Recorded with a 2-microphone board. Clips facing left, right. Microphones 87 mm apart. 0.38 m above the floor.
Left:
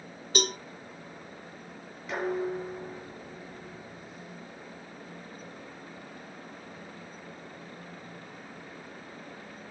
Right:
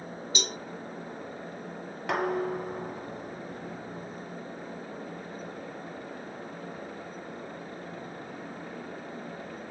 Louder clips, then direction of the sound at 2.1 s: Right 2 dB; 75° right (ahead or behind).